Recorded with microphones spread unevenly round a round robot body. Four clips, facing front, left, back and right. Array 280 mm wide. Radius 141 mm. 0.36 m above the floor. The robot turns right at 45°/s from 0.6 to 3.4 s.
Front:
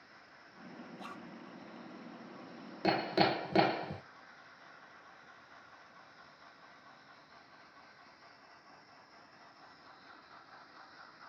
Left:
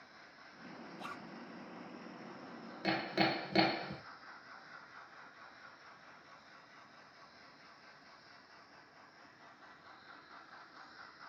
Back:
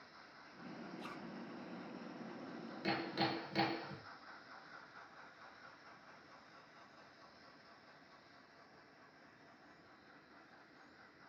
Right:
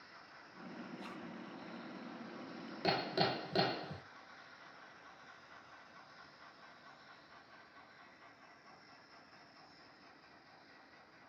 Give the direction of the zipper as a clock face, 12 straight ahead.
11 o'clock.